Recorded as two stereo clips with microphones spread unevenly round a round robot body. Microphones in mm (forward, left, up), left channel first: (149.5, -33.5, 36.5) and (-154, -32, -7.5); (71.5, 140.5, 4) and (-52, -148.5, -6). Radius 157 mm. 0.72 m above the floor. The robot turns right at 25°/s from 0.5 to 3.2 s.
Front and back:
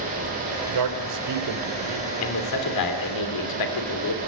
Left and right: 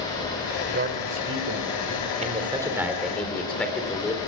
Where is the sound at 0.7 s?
Straight behind, 2.5 m; by 2.1 s 145° right, 2.5 m.